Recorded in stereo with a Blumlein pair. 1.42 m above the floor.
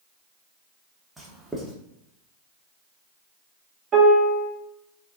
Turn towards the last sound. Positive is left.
turn(degrees=-30)